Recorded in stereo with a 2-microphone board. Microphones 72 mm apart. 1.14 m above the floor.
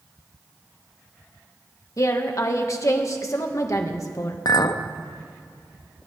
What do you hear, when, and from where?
2.0 s a woman speaking: 45° left (ahead or behind), 1.4 m
4.5 s a clink: 65° left (ahead or behind), 0.7 m